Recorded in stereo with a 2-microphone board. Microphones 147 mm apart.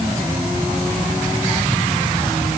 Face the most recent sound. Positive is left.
No sound to turn to.